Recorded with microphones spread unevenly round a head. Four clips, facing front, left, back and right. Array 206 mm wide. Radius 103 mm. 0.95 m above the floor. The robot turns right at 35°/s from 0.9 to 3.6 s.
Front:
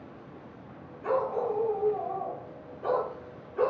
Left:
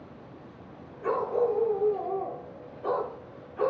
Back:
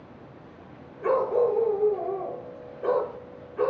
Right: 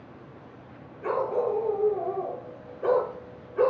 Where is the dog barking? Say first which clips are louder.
Even, back 6 dB; 170° right, 5 m; by 3.7 s 80° right, 5 m.